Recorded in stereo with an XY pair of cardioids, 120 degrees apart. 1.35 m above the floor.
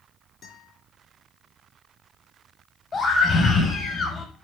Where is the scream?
40° left, 5.5 m.